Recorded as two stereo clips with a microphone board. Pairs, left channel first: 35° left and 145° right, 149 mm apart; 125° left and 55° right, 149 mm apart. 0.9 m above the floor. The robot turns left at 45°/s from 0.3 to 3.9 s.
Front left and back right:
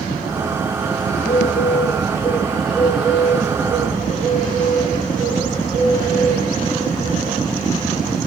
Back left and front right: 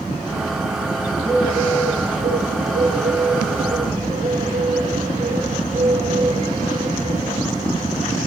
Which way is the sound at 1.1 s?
30° left.